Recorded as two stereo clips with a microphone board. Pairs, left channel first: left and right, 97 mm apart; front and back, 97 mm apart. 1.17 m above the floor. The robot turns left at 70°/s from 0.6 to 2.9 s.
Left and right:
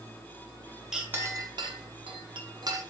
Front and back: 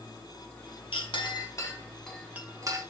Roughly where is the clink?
Ahead.